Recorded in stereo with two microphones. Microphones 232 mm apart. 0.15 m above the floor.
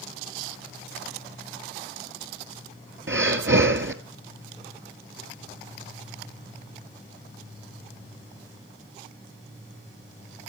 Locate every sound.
3.1 s breathing: 55° right (ahead or behind), 1.2 m